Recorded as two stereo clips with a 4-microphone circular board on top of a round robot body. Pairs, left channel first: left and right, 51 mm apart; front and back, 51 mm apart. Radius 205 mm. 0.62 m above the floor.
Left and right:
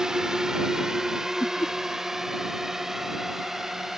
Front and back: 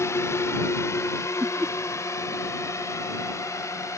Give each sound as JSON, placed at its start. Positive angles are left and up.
{"t": 0.0, "sound": "a drone", "azimuth_deg": -10}
{"t": 1.4, "sound": "laughter", "azimuth_deg": 115}